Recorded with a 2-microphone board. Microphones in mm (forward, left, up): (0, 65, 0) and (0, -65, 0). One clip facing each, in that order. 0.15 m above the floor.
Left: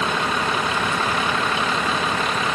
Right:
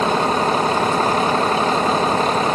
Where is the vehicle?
40° right (ahead or behind).